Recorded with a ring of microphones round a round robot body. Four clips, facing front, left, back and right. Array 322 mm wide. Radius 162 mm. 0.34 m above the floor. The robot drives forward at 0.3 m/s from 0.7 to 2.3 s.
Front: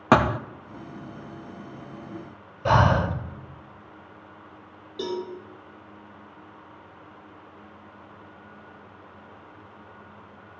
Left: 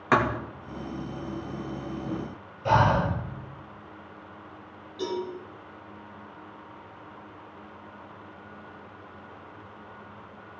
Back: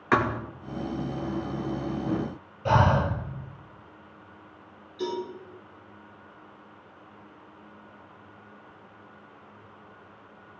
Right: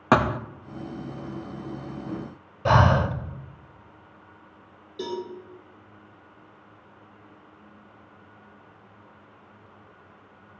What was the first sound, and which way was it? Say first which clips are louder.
A thud: right 3 dB, front 5 dB; 30° right.